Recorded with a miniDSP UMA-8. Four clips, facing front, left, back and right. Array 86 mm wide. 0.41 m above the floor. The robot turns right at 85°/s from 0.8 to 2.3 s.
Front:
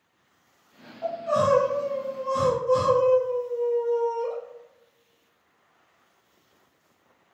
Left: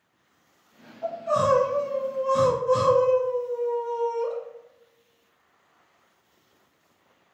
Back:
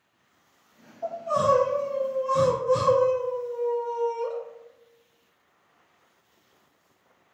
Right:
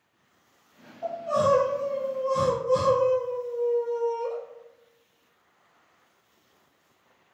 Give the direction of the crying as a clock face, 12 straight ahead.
12 o'clock.